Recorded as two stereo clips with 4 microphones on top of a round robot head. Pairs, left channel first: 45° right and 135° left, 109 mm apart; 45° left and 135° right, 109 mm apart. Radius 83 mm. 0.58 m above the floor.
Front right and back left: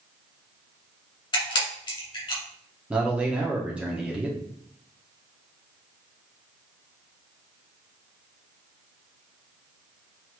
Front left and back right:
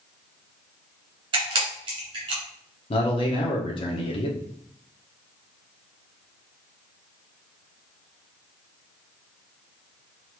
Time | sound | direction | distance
1.3 | a camera shutter | 90° right | 2.0 m
2.9 | a man speaking | 60° left | 1.0 m